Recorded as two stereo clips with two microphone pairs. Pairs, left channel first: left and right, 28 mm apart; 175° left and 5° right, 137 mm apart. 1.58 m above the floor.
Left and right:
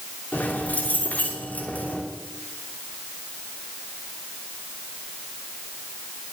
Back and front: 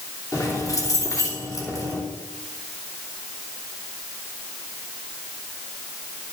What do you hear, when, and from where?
0.3 s keys jangling: 105° left, 3 m